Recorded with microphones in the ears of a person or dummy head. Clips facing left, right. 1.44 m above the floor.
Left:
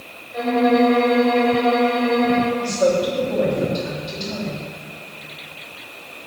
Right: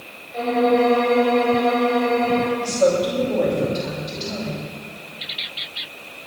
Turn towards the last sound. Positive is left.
turn(degrees=0)  # may be behind; listen again after turning